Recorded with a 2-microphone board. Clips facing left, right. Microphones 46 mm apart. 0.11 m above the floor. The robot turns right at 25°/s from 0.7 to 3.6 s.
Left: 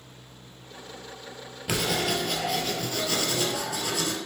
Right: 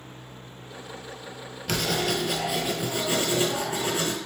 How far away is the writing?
About 0.6 m.